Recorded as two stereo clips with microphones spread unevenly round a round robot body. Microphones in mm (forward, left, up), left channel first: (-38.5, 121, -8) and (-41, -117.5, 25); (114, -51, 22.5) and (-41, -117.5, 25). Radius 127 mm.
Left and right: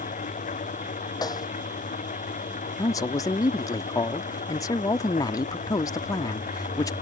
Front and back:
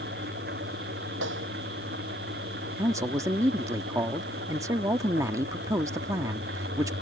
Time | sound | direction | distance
0.0 | an engine running | 150° left | ?
1.2 | a snare drum | 165° left | ?
2.8 | a man speaking | 140° left | ?